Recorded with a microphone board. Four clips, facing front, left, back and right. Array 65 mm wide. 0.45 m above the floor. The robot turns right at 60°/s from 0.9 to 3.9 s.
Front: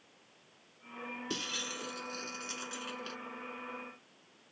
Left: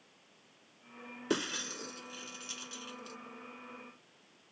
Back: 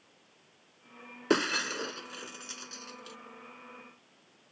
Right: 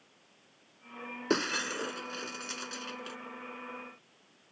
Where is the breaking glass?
165° right; by 3.2 s 50° right.